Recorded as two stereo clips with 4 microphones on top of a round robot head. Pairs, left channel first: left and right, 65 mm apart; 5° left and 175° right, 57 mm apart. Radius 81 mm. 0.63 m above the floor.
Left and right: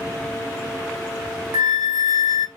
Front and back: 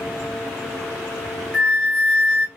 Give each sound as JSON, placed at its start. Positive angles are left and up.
{"t": 1.5, "sound": "a flute", "azimuth_deg": -65, "distance_m": 0.9}